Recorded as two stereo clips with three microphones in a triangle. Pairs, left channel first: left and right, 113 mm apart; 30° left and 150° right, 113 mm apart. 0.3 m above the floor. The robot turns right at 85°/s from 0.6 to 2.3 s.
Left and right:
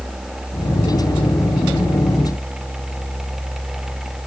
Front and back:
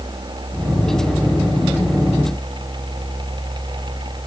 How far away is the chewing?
No chewing in this recording.